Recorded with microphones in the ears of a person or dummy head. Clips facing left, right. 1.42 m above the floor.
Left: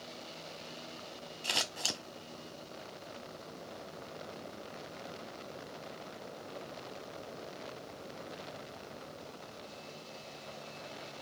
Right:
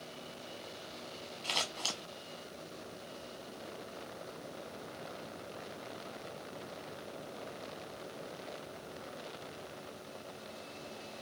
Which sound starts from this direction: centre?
Scissors, at 1.4 s.